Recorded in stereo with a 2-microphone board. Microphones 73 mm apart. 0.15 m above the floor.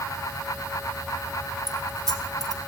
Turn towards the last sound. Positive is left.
turn(degrees=5)  # may be behind; listen again after turning